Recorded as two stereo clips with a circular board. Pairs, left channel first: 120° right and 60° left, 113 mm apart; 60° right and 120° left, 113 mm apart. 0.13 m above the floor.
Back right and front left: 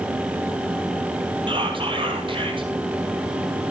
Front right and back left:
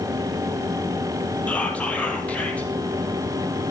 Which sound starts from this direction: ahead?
Whispering, at 1.5 s.